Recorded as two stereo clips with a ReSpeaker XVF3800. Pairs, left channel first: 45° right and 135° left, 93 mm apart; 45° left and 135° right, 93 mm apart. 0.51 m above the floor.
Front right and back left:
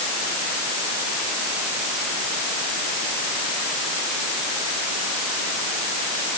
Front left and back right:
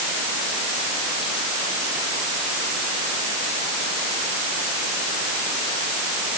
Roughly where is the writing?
No writing in this recording.